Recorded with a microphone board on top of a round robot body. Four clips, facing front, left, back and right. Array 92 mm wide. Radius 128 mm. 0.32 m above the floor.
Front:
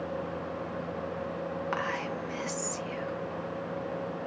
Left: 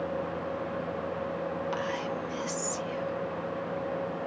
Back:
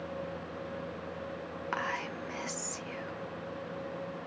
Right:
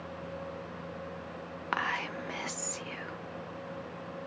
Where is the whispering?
90° right, 1.1 m.